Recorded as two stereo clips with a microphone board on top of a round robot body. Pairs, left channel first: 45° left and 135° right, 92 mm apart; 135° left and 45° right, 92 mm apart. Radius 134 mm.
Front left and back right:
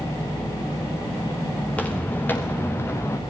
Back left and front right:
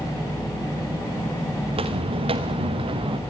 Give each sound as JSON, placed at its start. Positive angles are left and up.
{"t": 1.7, "sound": "footsteps", "azimuth_deg": -30, "distance_m": 3.5}